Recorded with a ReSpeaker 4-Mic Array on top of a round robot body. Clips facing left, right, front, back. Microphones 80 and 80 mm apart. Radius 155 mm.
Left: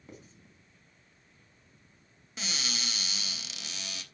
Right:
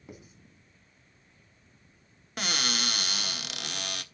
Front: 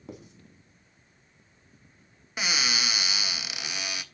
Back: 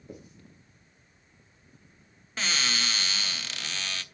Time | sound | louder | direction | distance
0.1 | writing | right 2 dB, front 2 dB | 10° right | 4 m
2.4 | a cupboard door | right 7 dB, front 1 dB | 75° right | 1.3 m